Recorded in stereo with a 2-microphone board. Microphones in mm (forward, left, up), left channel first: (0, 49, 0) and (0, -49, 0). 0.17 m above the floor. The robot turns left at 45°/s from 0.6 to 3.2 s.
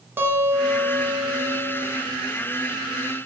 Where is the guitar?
40° right, 0.7 m; by 1.9 s 95° right, 0.7 m.